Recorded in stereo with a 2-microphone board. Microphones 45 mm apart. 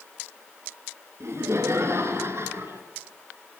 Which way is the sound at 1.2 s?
70° right (ahead or behind).